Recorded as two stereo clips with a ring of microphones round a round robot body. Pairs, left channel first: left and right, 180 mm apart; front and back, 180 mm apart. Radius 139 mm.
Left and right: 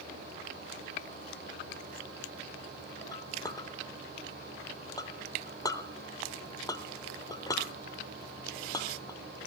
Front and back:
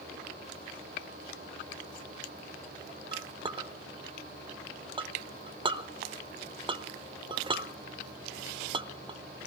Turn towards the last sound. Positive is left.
turn(degrees=145)